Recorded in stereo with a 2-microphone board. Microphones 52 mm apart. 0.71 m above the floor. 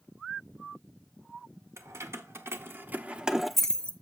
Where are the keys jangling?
70° right (ahead or behind), 1.2 m; by 3.9 s 25° left (ahead or behind), 0.7 m.